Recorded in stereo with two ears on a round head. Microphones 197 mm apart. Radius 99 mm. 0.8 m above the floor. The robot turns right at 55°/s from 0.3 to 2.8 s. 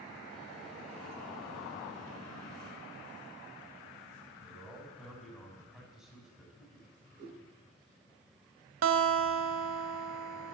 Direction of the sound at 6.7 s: 35° right (ahead or behind).